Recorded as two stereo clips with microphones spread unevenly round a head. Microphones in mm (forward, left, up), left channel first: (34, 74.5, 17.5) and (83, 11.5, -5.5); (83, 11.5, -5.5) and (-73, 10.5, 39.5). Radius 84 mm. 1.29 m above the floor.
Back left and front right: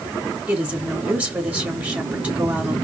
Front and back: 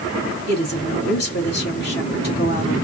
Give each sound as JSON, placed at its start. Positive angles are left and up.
{"t": 0.5, "sound": "a woman speaking", "azimuth_deg": 20, "distance_m": 3.0}